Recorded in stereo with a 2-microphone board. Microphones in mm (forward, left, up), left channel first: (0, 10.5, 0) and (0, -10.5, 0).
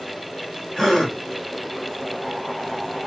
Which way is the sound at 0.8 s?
10° left (ahead or behind).